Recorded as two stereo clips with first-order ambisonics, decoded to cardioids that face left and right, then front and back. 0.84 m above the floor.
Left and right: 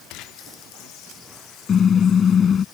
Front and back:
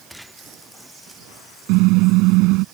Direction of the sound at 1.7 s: 155° left.